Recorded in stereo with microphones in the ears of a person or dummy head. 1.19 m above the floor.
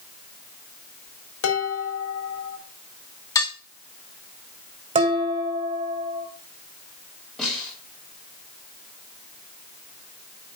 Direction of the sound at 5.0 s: 30° right (ahead or behind).